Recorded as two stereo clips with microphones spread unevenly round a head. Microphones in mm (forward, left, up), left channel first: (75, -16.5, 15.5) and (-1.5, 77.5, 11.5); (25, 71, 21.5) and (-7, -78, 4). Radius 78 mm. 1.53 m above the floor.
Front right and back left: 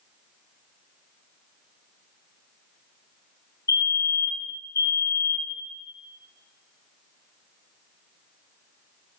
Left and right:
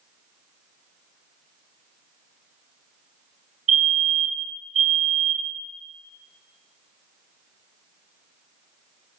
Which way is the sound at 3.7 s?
110° right.